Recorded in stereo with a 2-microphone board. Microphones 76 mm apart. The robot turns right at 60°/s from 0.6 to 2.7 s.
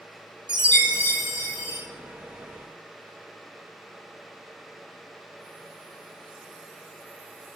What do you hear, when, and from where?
0.5 s a chime: 110° right, 1.7 m; by 1.8 s 40° right, 1.7 m